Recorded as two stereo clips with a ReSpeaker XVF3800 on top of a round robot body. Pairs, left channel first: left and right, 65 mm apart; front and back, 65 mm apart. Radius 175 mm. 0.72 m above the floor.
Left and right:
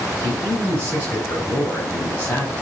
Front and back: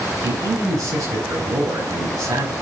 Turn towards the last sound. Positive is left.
turn(degrees=150)